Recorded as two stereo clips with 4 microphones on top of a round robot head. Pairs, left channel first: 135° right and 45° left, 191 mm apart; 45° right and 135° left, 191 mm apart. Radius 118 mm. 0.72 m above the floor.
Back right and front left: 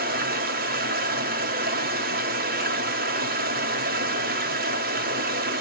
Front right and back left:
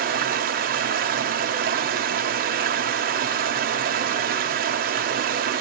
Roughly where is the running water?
Left.